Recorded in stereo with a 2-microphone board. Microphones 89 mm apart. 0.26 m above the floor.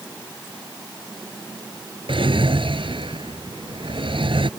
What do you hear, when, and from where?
2.1 s a drawer: 75° right (ahead or behind)